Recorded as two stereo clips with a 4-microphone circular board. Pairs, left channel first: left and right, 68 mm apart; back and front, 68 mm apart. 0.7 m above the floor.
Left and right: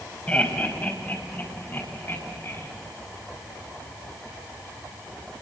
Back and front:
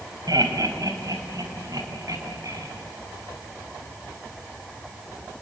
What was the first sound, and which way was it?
Laughter, 20° left.